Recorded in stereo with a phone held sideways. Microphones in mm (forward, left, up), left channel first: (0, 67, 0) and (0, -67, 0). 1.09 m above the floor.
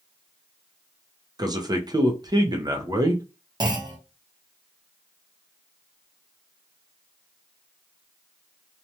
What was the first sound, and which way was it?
A man speaking, 30° right (ahead or behind).